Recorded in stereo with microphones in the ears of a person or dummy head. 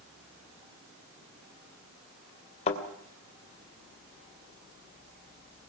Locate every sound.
2.7 s a thud: 35° left (ahead or behind), 2.5 m